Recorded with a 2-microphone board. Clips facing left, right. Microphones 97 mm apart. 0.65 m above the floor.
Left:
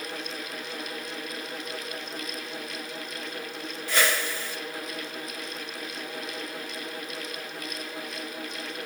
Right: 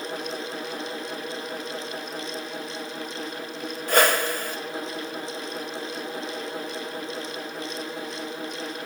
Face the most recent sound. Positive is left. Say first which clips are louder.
# right 6 dB
turn(degrees=-50)  # may be behind; listen again after turning